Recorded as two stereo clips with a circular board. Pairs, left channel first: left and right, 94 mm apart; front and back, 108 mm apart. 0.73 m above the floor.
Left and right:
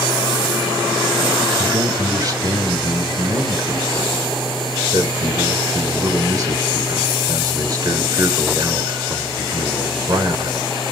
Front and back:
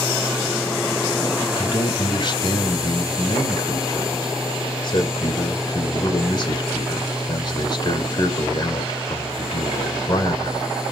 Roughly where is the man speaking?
Ahead right.